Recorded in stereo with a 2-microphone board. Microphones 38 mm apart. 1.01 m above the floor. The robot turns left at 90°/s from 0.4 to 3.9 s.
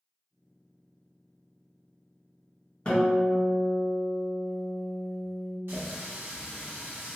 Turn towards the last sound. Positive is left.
turn(degrees=-65)  # may be behind; listen again after turning